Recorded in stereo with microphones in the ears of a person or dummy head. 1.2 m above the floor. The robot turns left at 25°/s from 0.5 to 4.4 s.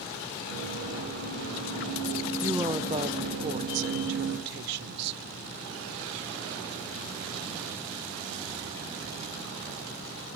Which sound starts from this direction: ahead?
A woman speaking, at 2.4 s.